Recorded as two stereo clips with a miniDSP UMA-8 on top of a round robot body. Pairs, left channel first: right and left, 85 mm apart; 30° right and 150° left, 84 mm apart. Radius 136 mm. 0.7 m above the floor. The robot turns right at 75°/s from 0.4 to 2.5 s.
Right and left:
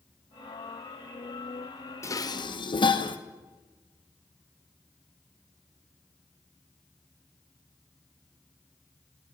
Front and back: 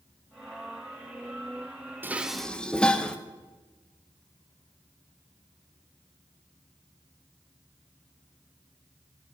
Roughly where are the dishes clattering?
Behind right.